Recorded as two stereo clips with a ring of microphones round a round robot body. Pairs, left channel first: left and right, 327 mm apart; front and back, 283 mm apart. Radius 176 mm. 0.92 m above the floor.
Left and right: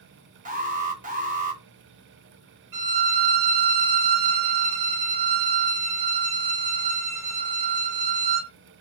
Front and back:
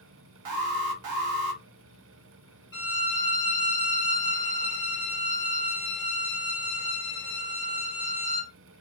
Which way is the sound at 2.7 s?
55° right.